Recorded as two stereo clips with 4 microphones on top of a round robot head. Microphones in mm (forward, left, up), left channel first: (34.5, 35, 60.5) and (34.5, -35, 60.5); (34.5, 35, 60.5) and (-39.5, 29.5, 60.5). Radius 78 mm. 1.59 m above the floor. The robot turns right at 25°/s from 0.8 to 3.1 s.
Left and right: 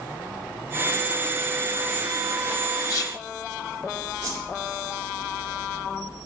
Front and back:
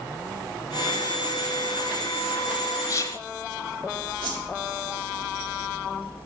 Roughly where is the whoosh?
Behind right.